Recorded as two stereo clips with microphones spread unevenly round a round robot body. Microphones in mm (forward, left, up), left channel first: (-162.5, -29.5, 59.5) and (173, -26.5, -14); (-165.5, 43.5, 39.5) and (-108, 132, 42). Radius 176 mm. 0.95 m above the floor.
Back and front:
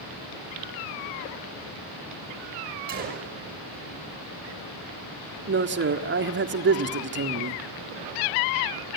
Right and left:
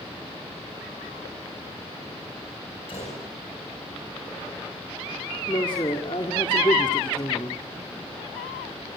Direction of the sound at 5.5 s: 55° right.